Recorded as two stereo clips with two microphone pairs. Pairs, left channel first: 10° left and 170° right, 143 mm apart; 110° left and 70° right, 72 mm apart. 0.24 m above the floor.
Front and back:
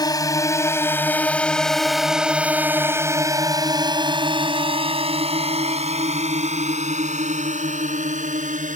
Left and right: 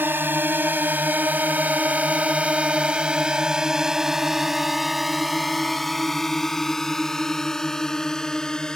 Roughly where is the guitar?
I don't hear a guitar.